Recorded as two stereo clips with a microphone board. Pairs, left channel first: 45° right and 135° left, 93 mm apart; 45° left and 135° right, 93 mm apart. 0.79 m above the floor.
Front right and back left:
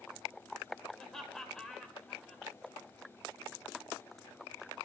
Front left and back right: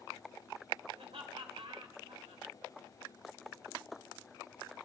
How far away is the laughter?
About 3 m.